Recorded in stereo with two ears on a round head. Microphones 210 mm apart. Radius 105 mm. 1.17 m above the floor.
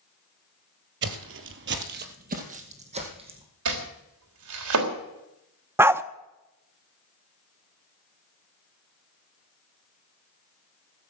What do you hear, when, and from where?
1.0 s footsteps: 50° right (ahead or behind), 1.8 m; by 3.5 s 20° right (ahead or behind), 4 m
3.6 s chopping: 65° right (ahead or behind), 3.5 m
5.8 s a dog barking: 10° right (ahead or behind), 0.6 m